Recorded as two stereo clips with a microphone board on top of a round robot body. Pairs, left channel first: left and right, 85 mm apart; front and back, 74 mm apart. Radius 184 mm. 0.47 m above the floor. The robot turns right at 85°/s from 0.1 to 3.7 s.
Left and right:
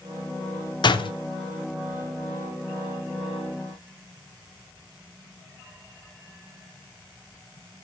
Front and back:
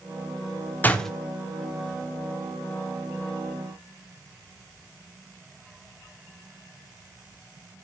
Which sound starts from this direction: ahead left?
A door slam, at 0.8 s.